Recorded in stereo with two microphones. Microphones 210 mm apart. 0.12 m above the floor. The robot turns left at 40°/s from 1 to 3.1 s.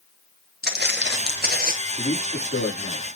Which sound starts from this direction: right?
Footsteps, at 0.6 s.